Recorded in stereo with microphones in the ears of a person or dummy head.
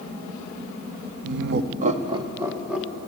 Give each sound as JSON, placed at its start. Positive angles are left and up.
{"t": 1.2, "sound": "laughter", "side_deg": -65, "distance_m": 0.6}